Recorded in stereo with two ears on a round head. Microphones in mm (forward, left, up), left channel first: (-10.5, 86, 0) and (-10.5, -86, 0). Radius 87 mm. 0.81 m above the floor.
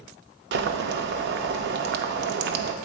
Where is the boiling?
60° right (ahead or behind), 0.6 m.